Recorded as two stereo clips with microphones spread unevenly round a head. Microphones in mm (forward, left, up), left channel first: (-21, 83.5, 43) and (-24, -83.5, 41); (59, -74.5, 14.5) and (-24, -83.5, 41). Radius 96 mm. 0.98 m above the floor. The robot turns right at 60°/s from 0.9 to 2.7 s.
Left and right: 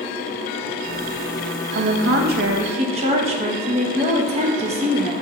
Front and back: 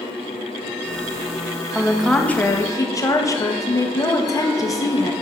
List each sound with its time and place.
1.8 s a woman speaking: 95° right, 1.1 m; by 5.1 s 35° right, 1.1 m